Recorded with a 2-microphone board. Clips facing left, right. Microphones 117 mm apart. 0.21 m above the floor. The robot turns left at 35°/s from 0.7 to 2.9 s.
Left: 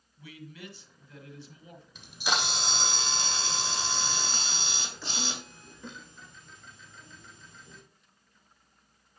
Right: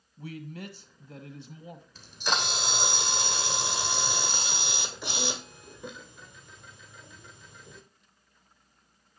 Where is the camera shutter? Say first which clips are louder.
Even; 15° left, 1.7 m; by 7.8 s 15° right, 1.7 m.